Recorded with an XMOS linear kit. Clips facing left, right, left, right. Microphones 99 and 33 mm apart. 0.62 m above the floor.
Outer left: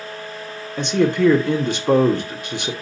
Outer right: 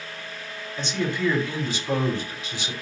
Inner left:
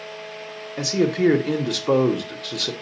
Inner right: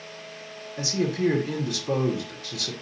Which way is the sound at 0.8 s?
60° left (ahead or behind).